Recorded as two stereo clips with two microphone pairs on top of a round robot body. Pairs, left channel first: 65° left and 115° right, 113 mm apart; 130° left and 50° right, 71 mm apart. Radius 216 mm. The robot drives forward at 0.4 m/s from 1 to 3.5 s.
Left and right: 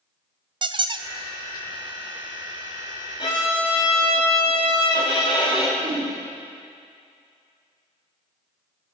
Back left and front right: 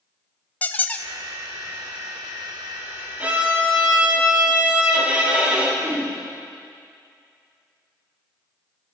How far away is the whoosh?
About 4.5 m.